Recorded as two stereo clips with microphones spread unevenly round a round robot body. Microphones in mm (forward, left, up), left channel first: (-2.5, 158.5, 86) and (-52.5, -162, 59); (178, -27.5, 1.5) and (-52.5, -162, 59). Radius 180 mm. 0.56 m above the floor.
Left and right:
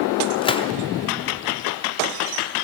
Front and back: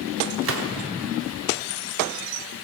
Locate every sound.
0.4 s a gunshot: 160° left, 0.6 m